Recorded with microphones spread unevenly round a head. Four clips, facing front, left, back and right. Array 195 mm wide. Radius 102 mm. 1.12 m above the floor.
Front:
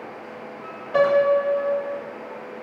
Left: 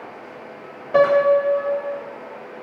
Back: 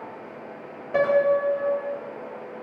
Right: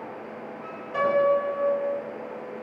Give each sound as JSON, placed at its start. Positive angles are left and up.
{"t": 0.9, "sound": "a piano", "azimuth_deg": 95, "distance_m": 3.5}